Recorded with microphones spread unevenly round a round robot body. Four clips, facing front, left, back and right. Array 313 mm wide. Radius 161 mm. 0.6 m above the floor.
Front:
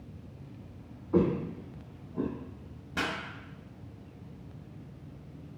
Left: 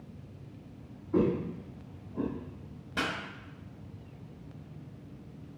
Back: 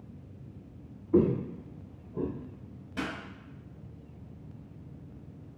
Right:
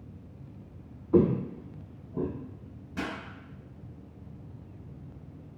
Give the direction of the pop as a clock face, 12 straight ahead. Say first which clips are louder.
Left 1 dB, front 2 dB; 11 o'clock.